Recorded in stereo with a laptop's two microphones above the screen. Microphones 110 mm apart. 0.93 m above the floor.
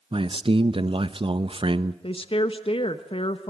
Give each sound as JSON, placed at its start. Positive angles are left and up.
{"t": 0.1, "sound": "a man speaking", "side_deg": -50, "distance_m": 0.8}
{"t": 2.0, "sound": "a woman speaking", "side_deg": 50, "distance_m": 1.1}